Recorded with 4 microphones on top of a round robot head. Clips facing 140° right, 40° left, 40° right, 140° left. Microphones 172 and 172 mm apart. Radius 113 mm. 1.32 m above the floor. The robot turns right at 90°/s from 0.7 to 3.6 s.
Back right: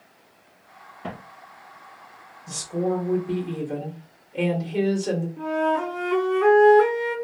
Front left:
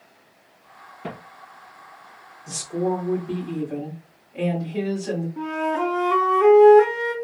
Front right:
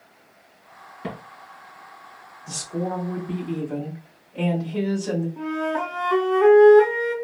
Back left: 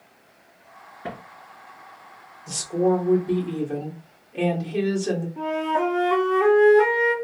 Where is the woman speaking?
60° left, 1.6 m; by 5.3 s 165° left, 1.6 m.